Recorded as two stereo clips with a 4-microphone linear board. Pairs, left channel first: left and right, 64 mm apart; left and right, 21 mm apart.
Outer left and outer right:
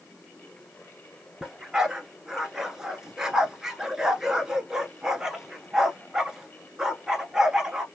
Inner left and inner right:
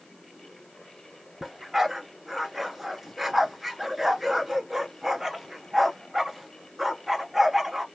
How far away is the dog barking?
About 1.5 m.